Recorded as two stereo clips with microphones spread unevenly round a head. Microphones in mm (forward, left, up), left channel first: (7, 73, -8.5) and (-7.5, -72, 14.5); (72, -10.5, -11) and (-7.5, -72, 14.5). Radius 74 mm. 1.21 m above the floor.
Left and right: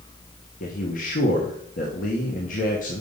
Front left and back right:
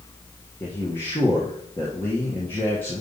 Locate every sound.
0.6 s a man speaking: 105° left, 1.2 m